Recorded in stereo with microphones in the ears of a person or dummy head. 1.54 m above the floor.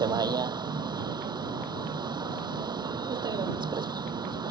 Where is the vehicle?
20° right (ahead or behind).